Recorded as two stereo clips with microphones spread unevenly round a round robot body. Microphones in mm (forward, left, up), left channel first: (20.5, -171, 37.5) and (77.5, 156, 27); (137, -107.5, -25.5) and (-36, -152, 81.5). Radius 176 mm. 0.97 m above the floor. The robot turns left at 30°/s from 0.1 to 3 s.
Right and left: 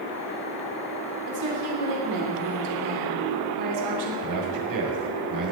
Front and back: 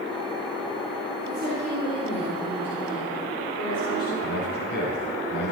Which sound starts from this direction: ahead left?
A man speaking, at 4.2 s.